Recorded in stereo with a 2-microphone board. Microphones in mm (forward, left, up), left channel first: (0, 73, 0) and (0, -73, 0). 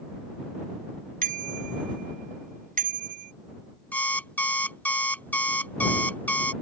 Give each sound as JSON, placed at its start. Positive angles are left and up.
{"t": 1.2, "sound": "a bicycle bell", "side_deg": -75}
{"t": 3.9, "sound": "an alarm clock", "side_deg": 10}